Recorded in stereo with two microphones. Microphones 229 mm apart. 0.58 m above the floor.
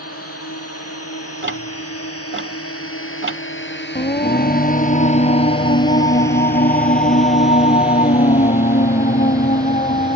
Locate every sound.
0.0 s a drone: 85° left; by 10.2 s 20° right (ahead or behind)
1.4 s ticking: 55° right (ahead or behind)
4.0 s singing: 35° left (ahead or behind)